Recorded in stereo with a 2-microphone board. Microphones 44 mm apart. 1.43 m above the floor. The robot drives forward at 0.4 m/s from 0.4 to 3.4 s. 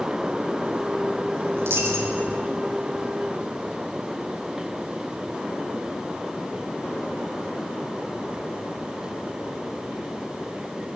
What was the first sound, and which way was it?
A dropped coin, 75° right (ahead or behind).